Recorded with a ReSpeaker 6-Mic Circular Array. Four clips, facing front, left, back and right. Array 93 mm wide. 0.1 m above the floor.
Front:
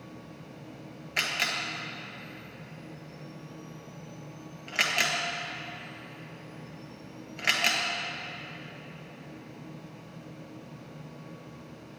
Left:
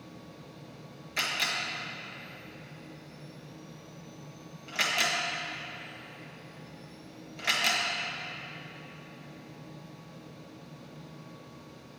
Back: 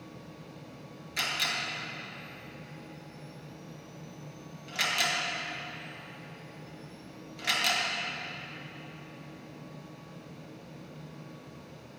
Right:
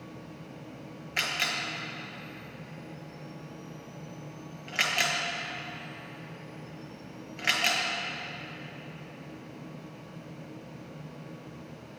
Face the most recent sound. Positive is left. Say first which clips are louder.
# even, front 2 dB
turn(degrees=-30)